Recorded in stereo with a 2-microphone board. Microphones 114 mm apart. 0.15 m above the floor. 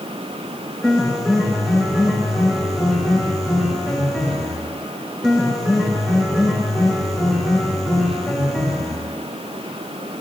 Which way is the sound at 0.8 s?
Centre (ahead or behind).